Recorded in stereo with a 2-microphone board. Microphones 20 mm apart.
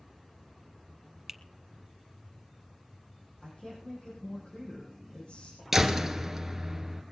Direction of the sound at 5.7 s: 15° right (ahead or behind).